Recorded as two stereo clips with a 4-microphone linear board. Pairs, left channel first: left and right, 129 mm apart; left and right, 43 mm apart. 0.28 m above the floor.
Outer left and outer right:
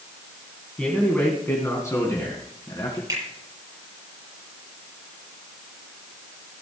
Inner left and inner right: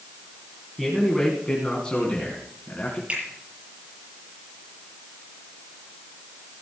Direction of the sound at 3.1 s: 25° right (ahead or behind).